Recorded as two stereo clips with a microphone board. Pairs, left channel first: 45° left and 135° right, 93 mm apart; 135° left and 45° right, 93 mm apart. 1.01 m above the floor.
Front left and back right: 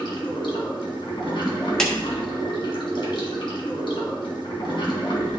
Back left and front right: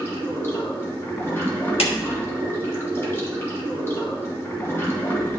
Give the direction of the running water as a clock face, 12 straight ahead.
10 o'clock.